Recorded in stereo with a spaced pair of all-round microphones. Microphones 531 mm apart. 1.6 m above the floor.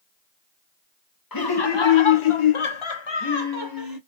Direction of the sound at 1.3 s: 40° left (ahead or behind).